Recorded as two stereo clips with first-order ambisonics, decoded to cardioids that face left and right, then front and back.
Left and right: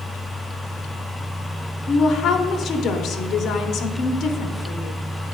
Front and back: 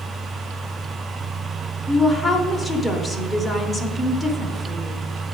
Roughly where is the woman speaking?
Left.